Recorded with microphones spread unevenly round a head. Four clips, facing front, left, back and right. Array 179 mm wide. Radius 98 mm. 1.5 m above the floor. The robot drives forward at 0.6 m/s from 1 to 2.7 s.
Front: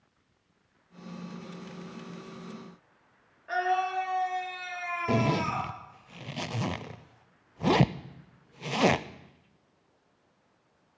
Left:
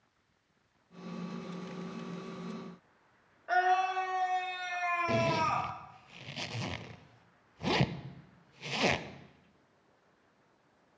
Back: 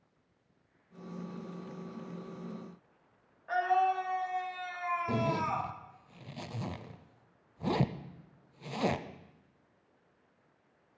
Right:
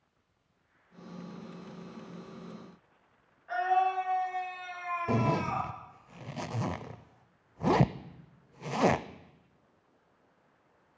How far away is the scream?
About 3.5 m.